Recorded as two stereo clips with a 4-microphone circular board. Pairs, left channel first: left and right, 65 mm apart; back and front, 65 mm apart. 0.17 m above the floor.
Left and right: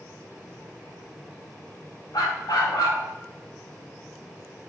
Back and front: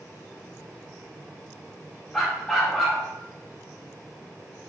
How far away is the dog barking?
About 4.5 m.